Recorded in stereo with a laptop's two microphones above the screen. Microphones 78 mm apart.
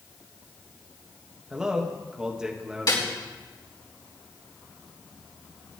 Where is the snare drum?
60° left (ahead or behind), 5 m.